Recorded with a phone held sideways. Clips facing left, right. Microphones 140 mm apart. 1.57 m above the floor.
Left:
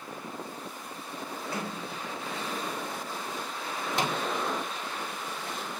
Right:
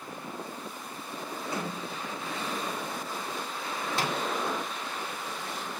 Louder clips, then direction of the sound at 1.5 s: Right 2 dB; 20° right (ahead or behind).